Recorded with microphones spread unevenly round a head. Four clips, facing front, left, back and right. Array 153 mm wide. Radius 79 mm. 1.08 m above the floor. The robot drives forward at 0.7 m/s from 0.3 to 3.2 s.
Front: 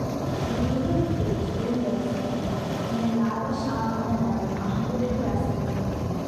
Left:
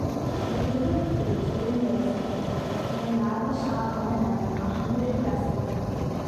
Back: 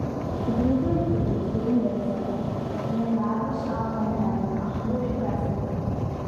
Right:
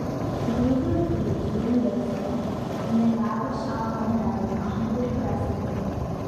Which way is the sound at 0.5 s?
125° right.